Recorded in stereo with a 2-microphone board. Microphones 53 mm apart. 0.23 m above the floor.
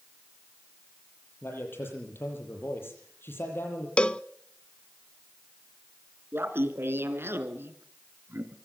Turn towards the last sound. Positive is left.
turn(degrees=-50)  # may be behind; listen again after turning